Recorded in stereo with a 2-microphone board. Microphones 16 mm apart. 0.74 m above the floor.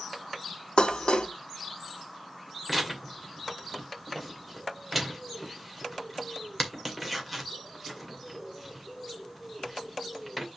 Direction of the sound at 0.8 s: 70° left (ahead or behind).